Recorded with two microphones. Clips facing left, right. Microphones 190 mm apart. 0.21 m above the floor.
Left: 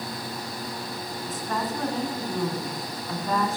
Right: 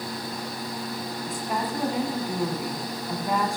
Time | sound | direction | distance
1.3 | a woman speaking | 15° right (ahead or behind) | 1.7 m